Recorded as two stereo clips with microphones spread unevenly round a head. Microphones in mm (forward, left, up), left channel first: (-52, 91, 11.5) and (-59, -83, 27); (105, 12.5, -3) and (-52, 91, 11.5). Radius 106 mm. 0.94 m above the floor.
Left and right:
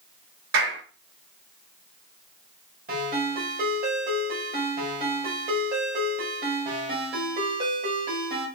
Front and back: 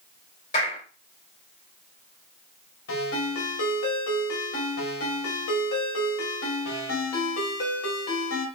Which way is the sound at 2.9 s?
40° right.